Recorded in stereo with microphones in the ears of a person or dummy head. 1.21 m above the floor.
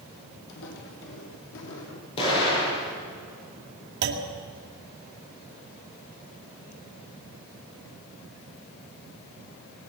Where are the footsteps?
65° left (ahead or behind), 2.5 m; by 2.1 s 60° left (ahead or behind), 3 m.